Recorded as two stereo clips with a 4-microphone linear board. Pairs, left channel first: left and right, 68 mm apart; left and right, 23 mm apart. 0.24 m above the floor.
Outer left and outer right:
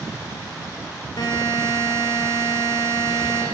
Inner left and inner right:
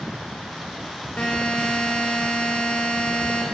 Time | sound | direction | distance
1.2 | a buzzer | 70° left (ahead or behind) | 7.5 m